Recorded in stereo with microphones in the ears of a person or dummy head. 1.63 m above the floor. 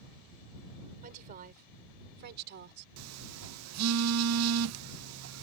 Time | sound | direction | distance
1.0 | a woman speaking | 40° right (ahead or behind) | ?
3.0 | a phone buzzing | 75° right (ahead or behind) | ?